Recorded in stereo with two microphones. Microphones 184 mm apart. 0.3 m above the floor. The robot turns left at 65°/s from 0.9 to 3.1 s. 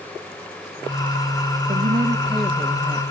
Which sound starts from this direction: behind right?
A woman speaking, at 1.7 s.